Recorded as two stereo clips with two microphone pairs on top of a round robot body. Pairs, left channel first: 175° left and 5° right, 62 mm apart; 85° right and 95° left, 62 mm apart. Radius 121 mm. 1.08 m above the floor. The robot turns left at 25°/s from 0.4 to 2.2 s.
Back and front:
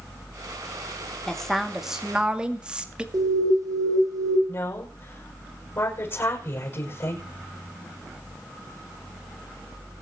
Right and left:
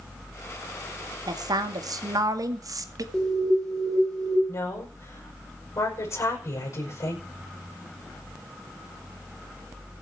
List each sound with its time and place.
1.3 s a woman speaking: 90° left, 2 m; by 3.0 s 70° left, 2 m
3.1 s an alarm: 5° right, 5 m
4.5 s a woman speaking: 135° right, 6.5 m